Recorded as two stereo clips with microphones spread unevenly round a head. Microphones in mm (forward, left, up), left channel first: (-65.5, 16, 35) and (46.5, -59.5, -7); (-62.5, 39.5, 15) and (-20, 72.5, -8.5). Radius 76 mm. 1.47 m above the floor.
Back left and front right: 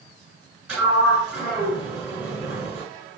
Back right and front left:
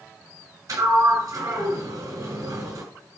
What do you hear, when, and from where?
0.7 s a sliding door: 55° left, 6.5 m